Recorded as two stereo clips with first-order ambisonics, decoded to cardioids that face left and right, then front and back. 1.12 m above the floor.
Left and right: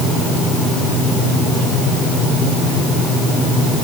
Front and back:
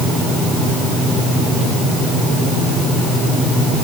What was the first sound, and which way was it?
Only background noise.